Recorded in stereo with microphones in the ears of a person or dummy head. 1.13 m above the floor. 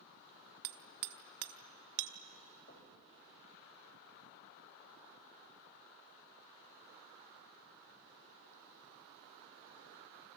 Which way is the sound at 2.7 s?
50° left (ahead or behind).